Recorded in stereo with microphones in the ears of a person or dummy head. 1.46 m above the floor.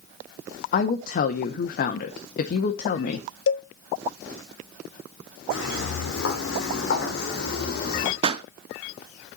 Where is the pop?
35° right (ahead or behind), 0.5 m.